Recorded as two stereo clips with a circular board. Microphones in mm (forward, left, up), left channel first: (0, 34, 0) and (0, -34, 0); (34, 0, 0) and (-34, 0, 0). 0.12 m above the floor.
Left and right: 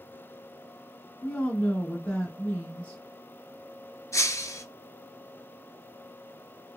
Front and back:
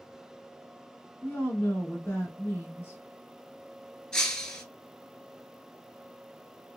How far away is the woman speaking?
About 1.6 m.